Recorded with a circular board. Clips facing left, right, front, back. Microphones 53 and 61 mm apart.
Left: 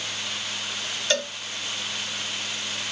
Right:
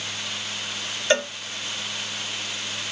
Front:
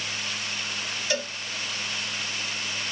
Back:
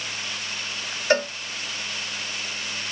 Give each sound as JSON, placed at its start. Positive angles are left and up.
{"t": 1.1, "sound": "a cowbell", "azimuth_deg": -150, "distance_m": 0.6}